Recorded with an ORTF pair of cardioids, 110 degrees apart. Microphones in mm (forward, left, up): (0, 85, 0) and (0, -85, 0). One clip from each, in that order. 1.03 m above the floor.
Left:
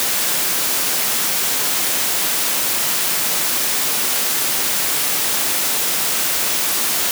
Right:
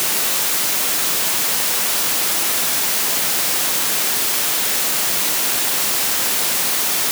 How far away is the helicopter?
I don't hear a helicopter.